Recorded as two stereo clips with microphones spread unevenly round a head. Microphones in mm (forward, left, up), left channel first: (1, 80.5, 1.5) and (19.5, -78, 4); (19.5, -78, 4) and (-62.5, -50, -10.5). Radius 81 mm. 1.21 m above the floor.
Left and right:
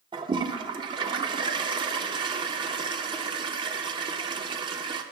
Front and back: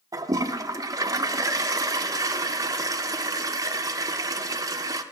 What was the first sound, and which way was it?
A toilet flushing, 145° right.